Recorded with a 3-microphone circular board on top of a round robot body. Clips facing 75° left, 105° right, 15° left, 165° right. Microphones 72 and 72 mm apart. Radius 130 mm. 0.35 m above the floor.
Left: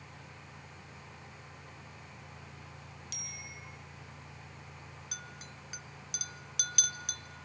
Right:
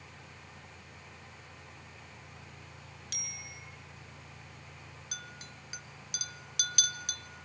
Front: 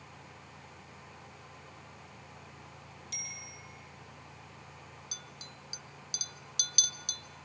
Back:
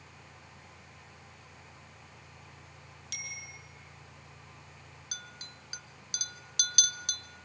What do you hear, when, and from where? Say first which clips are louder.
3.1 s a bicycle bell: right 2 dB, back 5 dB; 145° right, 4.5 m
5.1 s a clink: right 2 dB, back 1 dB; 165° left, 0.9 m